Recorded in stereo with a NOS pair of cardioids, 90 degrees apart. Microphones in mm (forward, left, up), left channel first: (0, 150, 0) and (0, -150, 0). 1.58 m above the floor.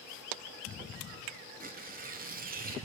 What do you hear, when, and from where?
1.6 s tearing paper: 30° right, 0.9 m